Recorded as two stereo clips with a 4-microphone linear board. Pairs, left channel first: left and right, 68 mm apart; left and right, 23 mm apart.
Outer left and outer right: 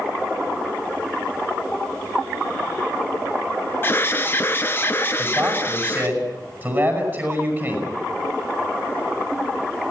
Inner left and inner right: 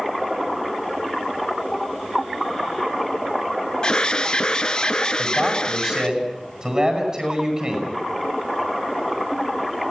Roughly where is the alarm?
Left.